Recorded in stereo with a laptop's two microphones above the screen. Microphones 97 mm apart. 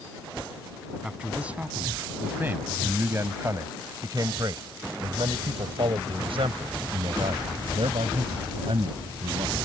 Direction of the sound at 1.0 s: 10° right (ahead or behind).